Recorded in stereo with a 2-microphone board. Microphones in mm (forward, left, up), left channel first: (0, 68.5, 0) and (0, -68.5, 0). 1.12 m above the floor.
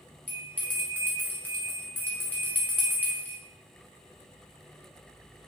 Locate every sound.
0.3 s a bell: 15° left (ahead or behind), 0.7 m